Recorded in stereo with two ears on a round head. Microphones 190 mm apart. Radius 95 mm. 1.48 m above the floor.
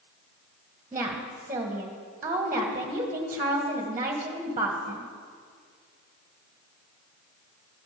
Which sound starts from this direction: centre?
A woman speaking, at 0.9 s.